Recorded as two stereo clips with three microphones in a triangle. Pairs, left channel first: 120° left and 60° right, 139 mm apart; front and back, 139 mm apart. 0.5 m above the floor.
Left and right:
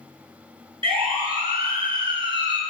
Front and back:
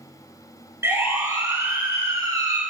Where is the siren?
110° right, 8.5 m; by 2.6 s 115° right, 8 m.